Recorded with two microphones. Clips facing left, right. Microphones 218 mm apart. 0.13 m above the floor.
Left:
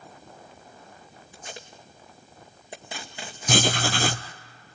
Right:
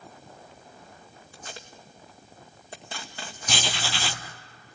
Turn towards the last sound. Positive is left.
turn(degrees=50)  # may be behind; listen again after turning